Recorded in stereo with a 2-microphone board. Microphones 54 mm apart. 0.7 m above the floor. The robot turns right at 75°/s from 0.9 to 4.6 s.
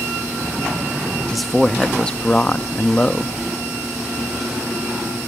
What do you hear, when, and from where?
1.3 s a man speaking: centre (ahead or behind), 0.5 m; by 3.3 s 10° left (ahead or behind), 0.5 m